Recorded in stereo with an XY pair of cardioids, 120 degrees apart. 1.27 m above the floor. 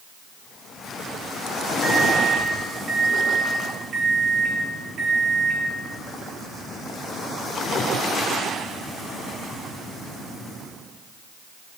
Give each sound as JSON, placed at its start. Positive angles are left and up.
{"t": 1.8, "sound": "a microwave", "azimuth_deg": -35, "distance_m": 2.0}